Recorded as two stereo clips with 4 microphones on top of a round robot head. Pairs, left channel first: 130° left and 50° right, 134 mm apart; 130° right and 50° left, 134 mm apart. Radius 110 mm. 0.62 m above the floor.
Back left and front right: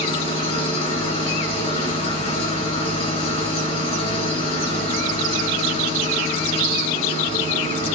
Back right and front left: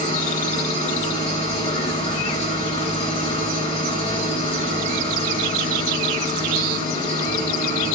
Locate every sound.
0.0 s an engine running: straight behind, 6 m